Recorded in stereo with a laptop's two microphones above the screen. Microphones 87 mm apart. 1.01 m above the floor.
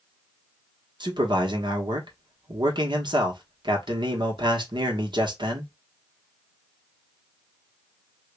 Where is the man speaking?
55° right (ahead or behind), 1.2 m.